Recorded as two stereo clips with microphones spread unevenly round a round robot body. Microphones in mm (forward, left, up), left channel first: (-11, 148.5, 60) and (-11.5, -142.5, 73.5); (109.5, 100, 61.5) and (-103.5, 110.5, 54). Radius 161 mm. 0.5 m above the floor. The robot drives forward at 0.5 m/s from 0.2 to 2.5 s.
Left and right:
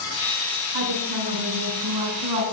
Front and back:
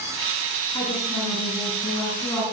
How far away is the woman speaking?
About 6.5 m.